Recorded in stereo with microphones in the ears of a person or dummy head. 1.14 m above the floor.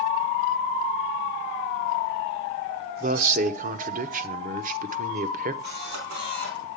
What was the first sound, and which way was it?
A man speaking, 45° right (ahead or behind).